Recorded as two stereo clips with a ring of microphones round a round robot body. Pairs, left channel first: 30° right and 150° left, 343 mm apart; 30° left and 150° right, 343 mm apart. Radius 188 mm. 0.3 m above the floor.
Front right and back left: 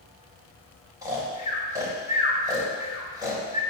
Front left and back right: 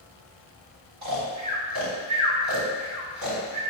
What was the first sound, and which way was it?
Snoring, 130° right.